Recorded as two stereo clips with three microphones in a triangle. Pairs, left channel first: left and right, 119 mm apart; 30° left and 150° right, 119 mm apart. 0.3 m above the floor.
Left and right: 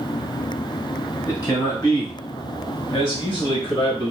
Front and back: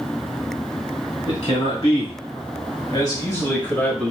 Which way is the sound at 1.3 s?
40° left.